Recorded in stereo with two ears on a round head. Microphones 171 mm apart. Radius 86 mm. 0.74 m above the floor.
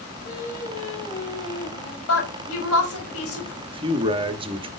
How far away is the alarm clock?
No alarm clock in this recording.